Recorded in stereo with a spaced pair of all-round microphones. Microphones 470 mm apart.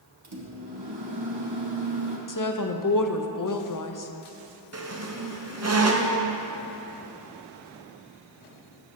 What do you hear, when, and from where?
0.2 s a microwave: 55° right (ahead or behind), 1.0 m
2.3 s a woman speaking: 45° left (ahead or behind), 0.6 m
4.7 s a squeak: 35° right (ahead or behind), 0.6 m